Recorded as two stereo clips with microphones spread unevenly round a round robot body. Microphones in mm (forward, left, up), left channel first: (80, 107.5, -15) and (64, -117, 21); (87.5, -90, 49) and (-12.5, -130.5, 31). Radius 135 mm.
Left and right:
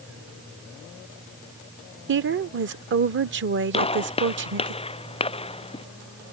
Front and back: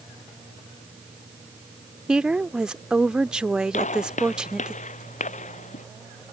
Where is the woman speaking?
90° right.